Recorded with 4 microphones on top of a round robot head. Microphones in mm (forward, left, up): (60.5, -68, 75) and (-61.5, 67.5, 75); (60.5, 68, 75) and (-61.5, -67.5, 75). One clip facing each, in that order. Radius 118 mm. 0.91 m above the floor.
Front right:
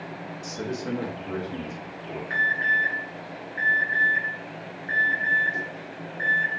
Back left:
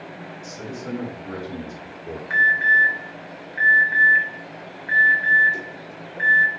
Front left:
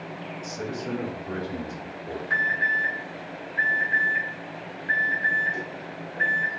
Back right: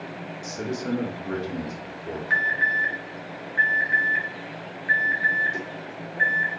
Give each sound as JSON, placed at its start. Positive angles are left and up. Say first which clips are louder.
{"t": 0.4, "sound": "a man speaking", "louder": "front right 3 dB, back right 3 dB", "azimuth_deg": -75, "distance_m": 1.3}
{"t": 2.3, "sound": "an alarm", "louder": "back left 4 dB, back right 1 dB", "azimuth_deg": -170, "distance_m": 2.0}